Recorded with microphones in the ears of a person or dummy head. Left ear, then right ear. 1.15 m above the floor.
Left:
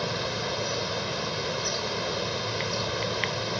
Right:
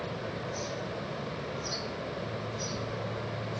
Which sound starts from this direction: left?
Running water, at 0.0 s.